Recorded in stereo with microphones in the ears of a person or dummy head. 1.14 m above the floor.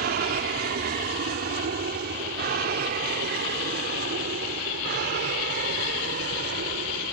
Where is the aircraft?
50° right (ahead or behind); by 7.1 s 55° right (ahead or behind).